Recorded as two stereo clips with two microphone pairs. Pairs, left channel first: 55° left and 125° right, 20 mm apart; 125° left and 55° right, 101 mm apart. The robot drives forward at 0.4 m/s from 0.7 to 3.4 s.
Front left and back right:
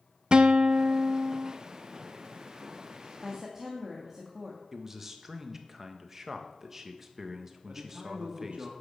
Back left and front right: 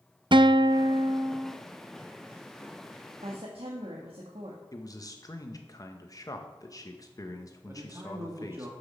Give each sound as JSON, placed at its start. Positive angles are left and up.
{"t": 0.3, "sound": "a guitar", "azimuth_deg": -85, "distance_m": 0.5}
{"t": 3.2, "sound": "a woman speaking", "azimuth_deg": -55, "distance_m": 1.6}
{"t": 4.7, "sound": "a man speaking", "azimuth_deg": 165, "distance_m": 1.2}
{"t": 7.7, "sound": "a man speaking", "azimuth_deg": -115, "distance_m": 1.5}